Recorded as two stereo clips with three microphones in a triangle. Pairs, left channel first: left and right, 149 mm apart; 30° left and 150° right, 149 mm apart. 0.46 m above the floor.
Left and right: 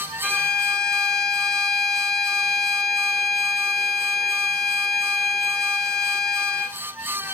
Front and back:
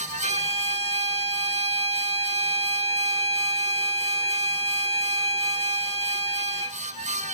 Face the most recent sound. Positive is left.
turn(degrees=180)